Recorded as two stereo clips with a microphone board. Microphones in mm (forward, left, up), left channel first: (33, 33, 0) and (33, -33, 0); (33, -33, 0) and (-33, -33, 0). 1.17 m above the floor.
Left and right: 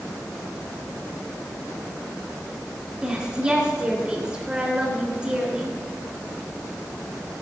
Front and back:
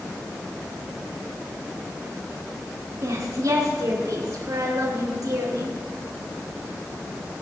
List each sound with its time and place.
3.0 s a woman speaking: 165° right, 3 m